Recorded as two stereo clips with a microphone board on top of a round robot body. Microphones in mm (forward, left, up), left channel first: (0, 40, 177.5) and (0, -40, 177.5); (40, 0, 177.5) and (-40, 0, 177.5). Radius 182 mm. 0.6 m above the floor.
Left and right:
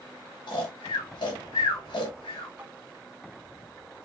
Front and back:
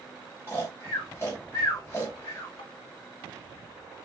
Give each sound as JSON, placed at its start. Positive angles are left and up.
{"t": 0.5, "sound": "snoring", "azimuth_deg": 60, "distance_m": 0.8}
{"t": 2.6, "sound": "tapping", "azimuth_deg": -10, "distance_m": 1.3}